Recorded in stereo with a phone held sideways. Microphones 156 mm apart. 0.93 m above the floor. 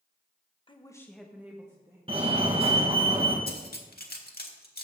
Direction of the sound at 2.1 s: 35° right (ahead or behind).